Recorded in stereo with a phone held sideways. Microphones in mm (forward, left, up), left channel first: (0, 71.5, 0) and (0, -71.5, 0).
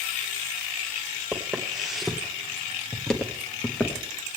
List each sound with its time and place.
1.3 s footsteps: centre (ahead or behind), 1.9 m; by 4.1 s 10° left (ahead or behind), 1.5 m